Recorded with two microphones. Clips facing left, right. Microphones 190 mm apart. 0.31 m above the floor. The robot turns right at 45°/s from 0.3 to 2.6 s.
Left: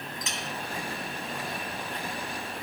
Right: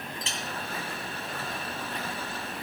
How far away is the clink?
About 1.7 m.